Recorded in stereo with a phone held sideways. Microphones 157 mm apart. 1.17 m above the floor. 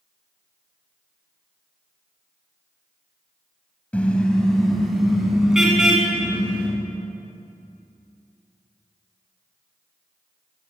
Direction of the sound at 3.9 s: 10° left (ahead or behind).